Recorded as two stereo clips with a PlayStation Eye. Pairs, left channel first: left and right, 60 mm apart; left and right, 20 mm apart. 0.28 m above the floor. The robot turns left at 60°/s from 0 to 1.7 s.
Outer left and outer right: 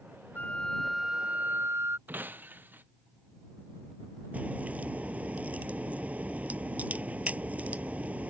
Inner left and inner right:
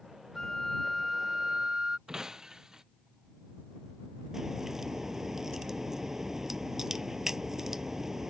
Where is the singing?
I don't hear singing.